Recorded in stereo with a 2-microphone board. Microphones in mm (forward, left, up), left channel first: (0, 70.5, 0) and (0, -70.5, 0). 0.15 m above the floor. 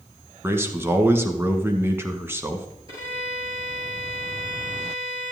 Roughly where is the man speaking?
Centre.